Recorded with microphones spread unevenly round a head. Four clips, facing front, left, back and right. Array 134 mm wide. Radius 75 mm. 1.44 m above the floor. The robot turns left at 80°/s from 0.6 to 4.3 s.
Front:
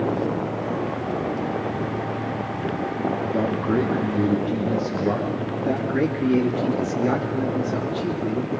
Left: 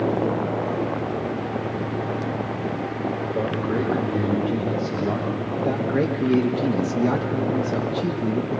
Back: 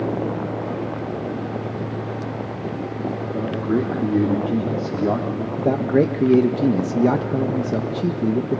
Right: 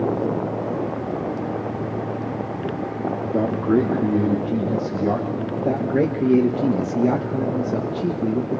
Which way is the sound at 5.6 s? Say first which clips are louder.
Right 3 dB, back 5 dB; 155° right.